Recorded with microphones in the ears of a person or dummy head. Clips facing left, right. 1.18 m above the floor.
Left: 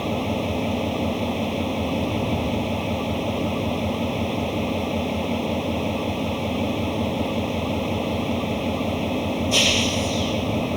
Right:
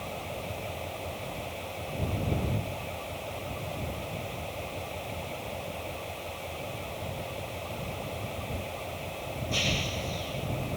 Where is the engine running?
70° left (ahead or behind).